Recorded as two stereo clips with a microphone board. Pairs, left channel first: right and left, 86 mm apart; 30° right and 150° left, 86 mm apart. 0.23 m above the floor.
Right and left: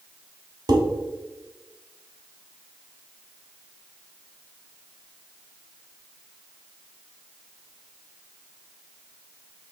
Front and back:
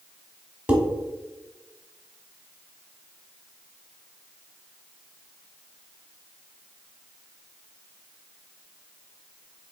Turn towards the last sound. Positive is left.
turn(degrees=80)